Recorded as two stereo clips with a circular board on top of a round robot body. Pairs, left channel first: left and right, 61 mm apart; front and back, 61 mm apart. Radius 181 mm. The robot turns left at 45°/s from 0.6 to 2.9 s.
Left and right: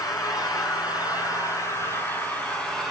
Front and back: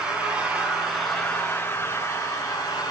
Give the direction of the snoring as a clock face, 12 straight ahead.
I don't hear snoring.